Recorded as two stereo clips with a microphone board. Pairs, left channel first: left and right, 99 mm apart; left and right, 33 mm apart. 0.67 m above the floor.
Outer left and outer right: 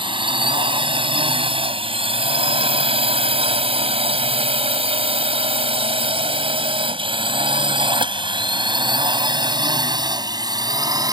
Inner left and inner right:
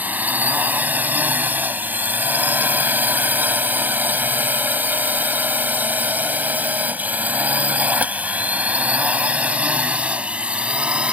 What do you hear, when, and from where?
0.0 s a drone: 60° right (ahead or behind); by 11.2 s 40° right (ahead or behind)